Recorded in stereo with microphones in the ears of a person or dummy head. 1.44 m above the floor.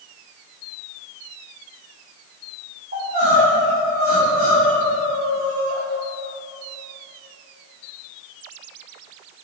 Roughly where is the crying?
Right.